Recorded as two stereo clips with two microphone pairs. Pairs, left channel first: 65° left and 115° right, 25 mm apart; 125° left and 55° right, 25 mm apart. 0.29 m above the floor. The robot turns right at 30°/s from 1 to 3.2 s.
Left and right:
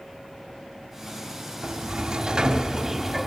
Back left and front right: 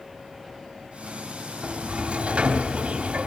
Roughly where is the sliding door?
Right.